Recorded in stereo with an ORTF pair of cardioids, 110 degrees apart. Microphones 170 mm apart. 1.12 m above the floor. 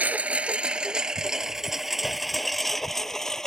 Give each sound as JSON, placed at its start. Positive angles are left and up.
{"t": 0.0, "sound": "a lawn mower", "azimuth_deg": -10}